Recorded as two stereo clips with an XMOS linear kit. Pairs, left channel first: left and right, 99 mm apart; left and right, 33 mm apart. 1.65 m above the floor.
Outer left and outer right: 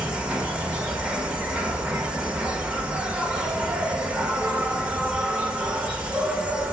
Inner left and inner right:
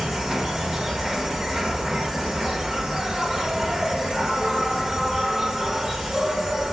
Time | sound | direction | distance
0.0 | an insect | 10° right (ahead or behind) | 1.1 m